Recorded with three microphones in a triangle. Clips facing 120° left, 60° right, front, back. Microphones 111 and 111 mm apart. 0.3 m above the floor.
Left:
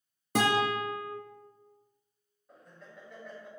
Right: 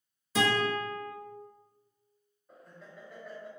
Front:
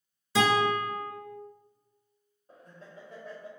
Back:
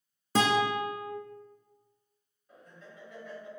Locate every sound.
0.3 s a guitar: 140° left, 0.8 m
2.5 s laughter: 25° left, 1.1 m